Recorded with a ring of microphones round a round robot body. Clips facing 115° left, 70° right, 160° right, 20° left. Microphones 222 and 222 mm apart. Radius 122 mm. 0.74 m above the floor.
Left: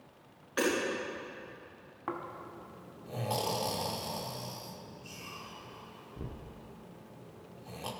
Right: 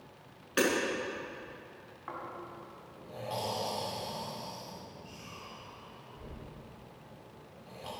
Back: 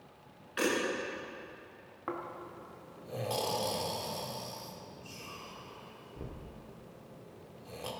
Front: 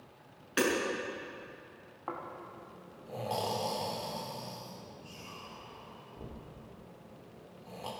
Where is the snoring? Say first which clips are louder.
Left 4 dB, back 3 dB; 135° left, 1.8 m.